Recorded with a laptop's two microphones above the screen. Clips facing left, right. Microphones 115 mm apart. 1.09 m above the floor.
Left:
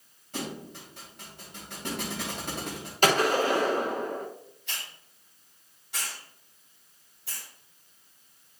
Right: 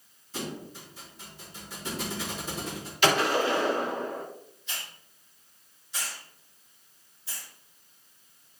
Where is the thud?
65° left (ahead or behind), 3 m.